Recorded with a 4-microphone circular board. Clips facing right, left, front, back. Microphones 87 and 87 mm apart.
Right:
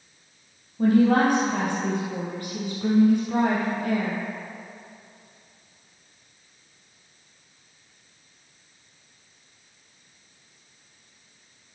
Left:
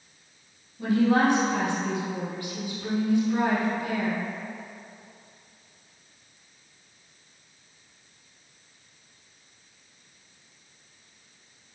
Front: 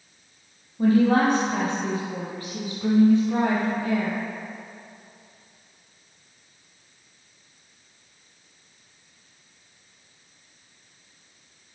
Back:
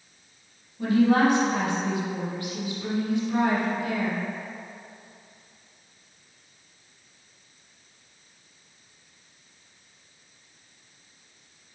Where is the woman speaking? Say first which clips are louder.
Right 3 dB, front 1 dB; 50° right, 3.5 m.